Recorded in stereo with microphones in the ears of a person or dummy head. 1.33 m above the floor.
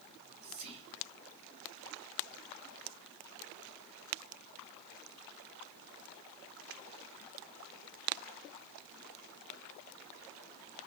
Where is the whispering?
40° right (ahead or behind), 3 m.